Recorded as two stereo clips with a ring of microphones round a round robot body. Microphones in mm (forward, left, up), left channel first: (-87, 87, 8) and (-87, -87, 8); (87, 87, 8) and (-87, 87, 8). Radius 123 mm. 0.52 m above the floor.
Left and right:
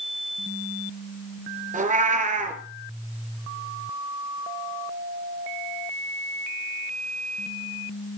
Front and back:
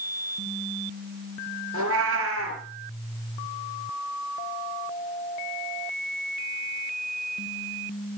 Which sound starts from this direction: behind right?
A cat meowing, at 1.7 s.